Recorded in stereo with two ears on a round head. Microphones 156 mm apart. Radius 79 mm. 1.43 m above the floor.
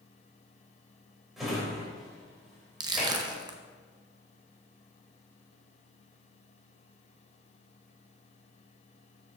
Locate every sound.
1.4 s a drawer: centre (ahead or behind), 3 m
2.8 s crushing: 25° right (ahead or behind), 0.8 m